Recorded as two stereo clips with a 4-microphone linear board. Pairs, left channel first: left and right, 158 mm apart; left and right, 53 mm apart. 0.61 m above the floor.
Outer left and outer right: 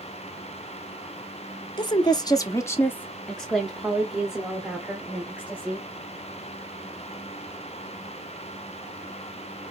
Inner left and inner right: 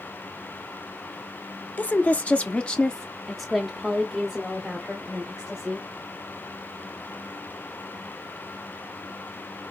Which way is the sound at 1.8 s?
25° left (ahead or behind).